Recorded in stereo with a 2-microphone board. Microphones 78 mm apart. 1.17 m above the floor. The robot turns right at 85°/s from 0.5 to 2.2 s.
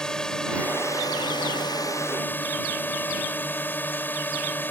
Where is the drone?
10° left; by 4.7 s 155° left.